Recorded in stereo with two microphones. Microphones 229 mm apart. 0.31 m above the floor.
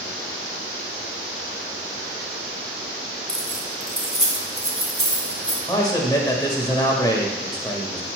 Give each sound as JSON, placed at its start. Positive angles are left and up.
{"t": 3.3, "sound": "keys jangling", "side_deg": -65, "distance_m": 1.8}
{"t": 5.7, "sound": "a man speaking", "side_deg": 15, "distance_m": 1.2}